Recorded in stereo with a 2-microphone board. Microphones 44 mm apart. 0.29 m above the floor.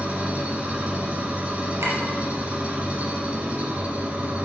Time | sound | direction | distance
0.0 | an engine running | 30° right (ahead or behind) | 1.5 m
1.8 | a clink | 80° right | 3 m